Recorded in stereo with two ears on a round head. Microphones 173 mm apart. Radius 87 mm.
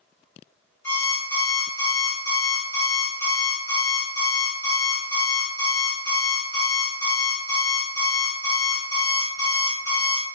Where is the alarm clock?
15° left (ahead or behind), 1.4 m.